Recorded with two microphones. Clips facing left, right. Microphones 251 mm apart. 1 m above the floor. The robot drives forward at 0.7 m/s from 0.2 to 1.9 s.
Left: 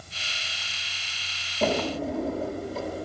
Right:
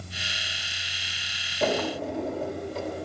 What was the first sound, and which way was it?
A drawer, centre (ahead or behind).